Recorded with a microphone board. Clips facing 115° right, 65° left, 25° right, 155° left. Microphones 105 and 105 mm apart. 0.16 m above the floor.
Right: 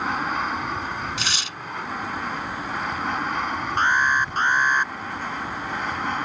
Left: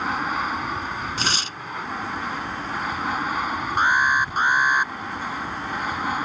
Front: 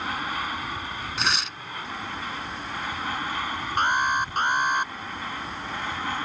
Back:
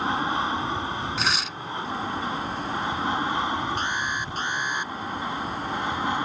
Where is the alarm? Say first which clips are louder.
Left 1 dB, front 5 dB; 10° right.